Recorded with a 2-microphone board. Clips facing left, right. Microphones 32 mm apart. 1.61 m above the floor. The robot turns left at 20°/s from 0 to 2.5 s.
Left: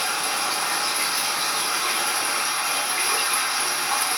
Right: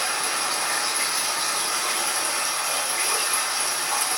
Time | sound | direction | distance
0.0 | running water | 10° left (ahead or behind) | 1.5 m